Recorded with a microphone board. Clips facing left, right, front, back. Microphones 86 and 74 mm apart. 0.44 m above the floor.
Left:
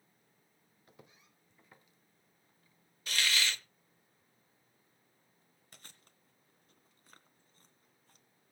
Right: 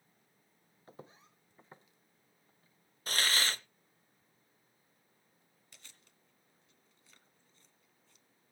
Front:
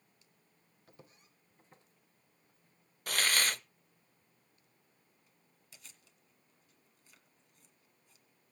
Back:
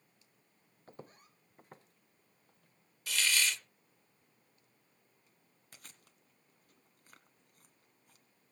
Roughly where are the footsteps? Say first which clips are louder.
Right 7 dB, back 8 dB; behind right.